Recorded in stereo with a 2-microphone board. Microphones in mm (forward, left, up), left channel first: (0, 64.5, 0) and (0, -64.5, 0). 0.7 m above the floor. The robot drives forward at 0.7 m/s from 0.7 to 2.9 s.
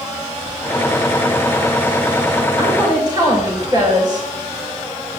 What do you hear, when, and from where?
2.6 s a woman speaking: 35° right (ahead or behind), 2.5 m; by 4.3 s 30° right (ahead or behind), 2.5 m